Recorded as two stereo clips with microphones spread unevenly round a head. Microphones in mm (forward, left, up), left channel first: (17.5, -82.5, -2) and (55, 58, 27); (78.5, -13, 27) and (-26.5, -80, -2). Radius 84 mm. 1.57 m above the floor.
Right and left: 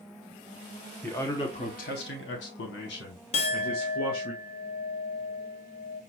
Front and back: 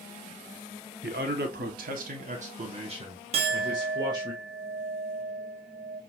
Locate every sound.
1.0 s a man speaking: 170° left, 0.9 m; by 4.3 s 85° right, 2 m
3.3 s a clink: 140° right, 0.6 m